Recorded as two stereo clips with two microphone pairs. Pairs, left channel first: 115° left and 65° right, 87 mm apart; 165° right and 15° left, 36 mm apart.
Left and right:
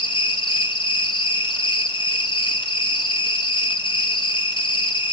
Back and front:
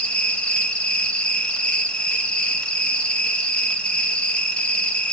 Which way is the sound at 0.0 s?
130° left.